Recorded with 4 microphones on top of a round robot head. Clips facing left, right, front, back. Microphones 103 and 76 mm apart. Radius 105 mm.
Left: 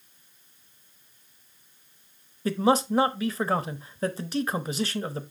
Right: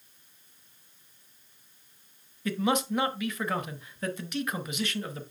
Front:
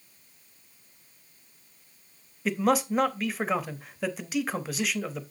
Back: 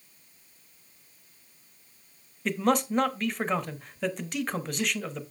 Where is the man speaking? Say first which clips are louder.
Left 5 dB, front 1 dB; 80° left, 1.0 m.